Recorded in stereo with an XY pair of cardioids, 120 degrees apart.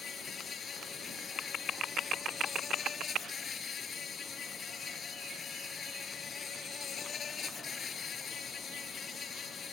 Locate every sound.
0.0 s an insect: 40° left